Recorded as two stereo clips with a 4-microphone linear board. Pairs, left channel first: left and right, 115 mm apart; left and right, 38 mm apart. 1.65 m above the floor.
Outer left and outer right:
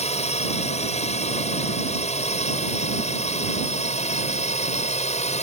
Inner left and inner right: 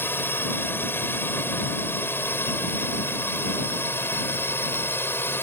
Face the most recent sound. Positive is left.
turn(degrees=75)  # may be behind; listen again after turning